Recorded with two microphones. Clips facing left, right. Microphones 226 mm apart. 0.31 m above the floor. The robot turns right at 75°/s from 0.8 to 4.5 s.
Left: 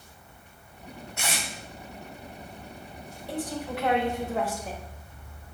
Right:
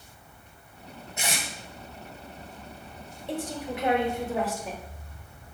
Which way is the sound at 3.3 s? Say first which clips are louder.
Even; 25° right (ahead or behind).